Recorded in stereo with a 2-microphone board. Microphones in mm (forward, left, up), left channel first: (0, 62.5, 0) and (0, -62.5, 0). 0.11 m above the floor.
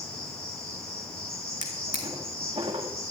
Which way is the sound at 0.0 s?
30° left (ahead or behind).